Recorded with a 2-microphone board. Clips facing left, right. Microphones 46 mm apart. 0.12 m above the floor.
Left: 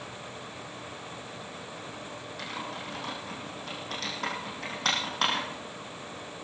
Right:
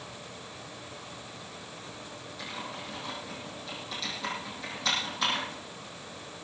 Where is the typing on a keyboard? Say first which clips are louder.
Left 2 dB; 60° left (ahead or behind), 5.5 m.